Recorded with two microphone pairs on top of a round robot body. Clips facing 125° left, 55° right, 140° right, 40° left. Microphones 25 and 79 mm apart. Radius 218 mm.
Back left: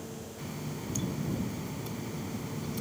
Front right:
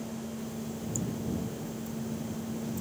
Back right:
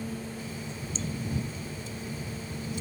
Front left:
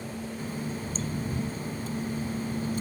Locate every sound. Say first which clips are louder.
0.4 s a running tap: front right 2 dB, front left 4 dB; 85° left